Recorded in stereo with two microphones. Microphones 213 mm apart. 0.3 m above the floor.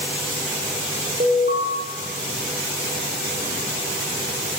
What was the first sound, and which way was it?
An alarm, 35° right (ahead or behind).